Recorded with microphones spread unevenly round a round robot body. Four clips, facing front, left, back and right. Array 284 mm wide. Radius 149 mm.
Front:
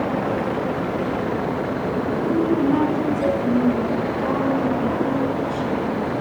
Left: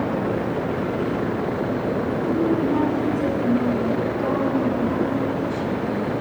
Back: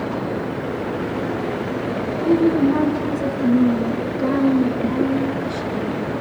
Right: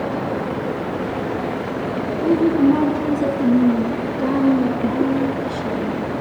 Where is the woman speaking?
105° right, 8 m.